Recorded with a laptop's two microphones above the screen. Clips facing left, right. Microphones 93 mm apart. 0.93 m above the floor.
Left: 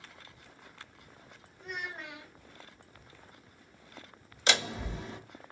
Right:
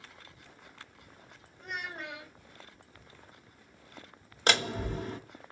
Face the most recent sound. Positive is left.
turn(degrees=-50)  # may be behind; listen again after turning